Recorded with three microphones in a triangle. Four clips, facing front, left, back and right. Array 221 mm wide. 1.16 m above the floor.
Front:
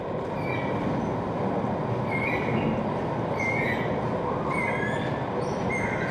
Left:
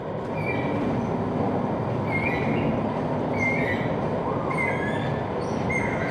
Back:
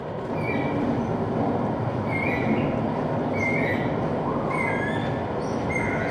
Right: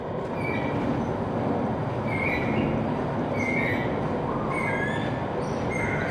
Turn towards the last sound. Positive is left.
turn(degrees=165)